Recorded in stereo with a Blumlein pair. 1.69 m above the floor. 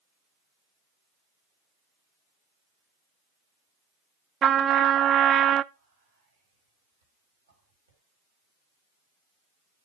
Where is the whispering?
70° right, 7 m.